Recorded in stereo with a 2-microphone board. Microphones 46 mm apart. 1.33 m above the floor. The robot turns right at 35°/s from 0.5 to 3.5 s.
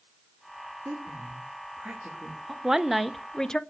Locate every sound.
0.8 s a woman speaking: 60° right (ahead or behind), 3 m; by 2.5 s 5° right (ahead or behind), 3 m
2.6 s a woman speaking: 15° right, 0.6 m; by 3.6 s 15° left, 0.6 m